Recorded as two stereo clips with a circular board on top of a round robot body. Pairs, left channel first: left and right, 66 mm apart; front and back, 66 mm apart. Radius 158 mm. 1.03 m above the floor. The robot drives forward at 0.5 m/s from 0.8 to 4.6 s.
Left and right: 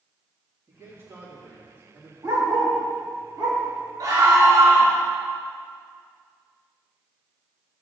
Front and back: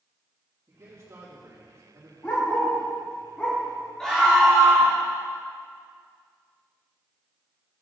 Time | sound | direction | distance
0.7 | a man speaking | 125° right | 2.5 m
2.2 | a dog barking | 55° right | 2.5 m
4.0 | a scream | 80° right | 3 m